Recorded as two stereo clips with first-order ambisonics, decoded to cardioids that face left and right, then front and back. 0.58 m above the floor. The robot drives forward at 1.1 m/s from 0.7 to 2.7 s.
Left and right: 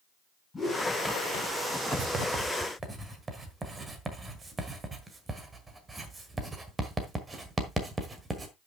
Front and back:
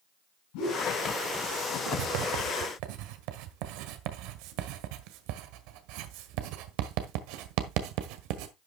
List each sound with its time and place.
0.5 s a whoosh: 10° left, 7 m
1.9 s writing: 145° right, 0.7 m; by 8.5 s 165° right, 1.5 m